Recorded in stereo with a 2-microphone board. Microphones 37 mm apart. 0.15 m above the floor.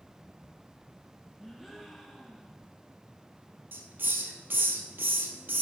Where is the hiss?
75° right (ahead or behind), 1.4 m.